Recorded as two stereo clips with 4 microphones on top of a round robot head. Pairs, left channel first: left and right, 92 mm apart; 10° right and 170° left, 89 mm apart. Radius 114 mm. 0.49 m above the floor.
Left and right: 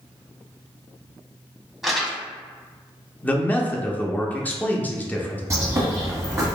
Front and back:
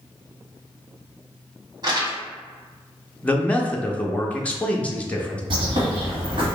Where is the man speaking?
45° left, 0.8 m.